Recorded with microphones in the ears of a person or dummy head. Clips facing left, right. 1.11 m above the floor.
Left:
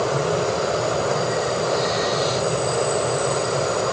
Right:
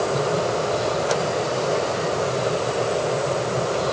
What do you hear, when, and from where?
Only background noise.